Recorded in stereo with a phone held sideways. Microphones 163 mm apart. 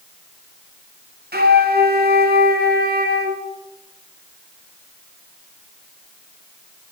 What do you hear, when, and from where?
1.3 s a flute: 75° right (ahead or behind), 0.8 m